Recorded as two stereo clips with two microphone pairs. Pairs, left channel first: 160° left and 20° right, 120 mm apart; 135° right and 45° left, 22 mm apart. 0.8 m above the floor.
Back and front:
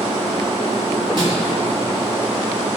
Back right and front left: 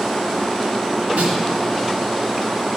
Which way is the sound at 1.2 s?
25° left.